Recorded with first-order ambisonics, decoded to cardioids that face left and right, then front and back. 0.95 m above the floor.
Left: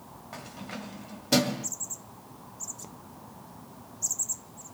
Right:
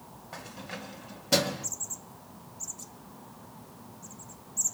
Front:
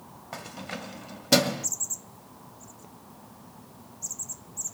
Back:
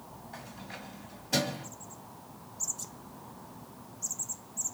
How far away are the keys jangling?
About 1.2 m.